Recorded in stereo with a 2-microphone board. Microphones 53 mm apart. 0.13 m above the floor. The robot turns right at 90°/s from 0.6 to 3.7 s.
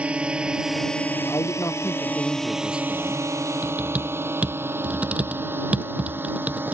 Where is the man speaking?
65° left; by 3.3 s 115° right.